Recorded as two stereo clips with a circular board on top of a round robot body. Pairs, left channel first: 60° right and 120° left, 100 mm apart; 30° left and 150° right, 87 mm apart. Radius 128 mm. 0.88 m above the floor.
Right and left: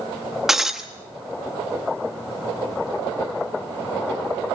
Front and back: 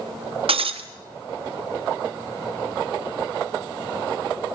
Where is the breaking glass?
155° right, 1.2 m.